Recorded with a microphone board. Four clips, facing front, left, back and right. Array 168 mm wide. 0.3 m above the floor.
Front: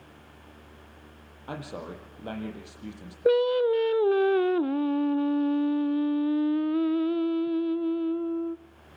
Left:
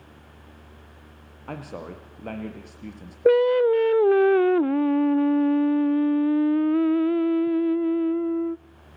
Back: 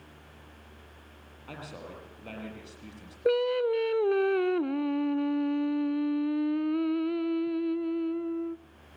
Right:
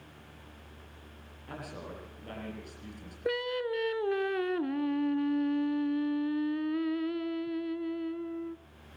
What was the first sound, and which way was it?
A man speaking, 65° left.